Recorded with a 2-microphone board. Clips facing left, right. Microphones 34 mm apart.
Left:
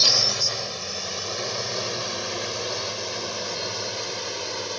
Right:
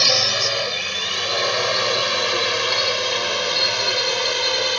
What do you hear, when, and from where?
0.0 s a drone: 60° right (ahead or behind); by 4.8 s 70° right (ahead or behind)